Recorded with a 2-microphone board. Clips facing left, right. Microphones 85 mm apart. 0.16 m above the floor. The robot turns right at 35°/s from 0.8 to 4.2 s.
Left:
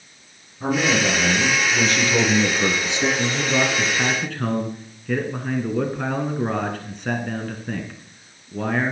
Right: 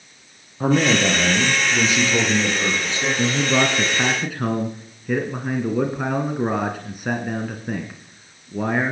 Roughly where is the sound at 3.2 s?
Ahead right.